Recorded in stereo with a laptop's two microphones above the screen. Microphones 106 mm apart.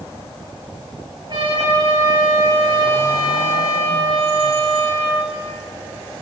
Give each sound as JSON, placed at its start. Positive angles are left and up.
{"t": 1.3, "sound": "a trumpet", "side_deg": -45, "distance_m": 5.5}